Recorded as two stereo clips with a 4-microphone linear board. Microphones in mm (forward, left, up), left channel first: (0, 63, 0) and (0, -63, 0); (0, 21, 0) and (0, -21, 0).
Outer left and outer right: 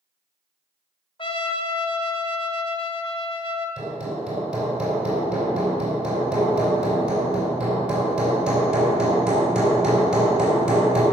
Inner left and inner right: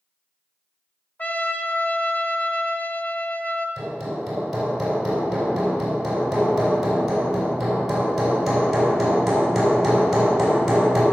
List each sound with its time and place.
1.2 s a trumpet: 40° left (ahead or behind), 1.0 m
3.8 s hammering: 5° right (ahead or behind), 4 m